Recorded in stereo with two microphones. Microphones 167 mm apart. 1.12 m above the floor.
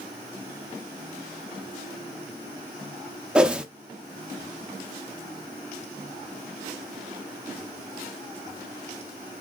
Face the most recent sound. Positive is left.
turn(degrees=-5)  # may be behind; listen again after turning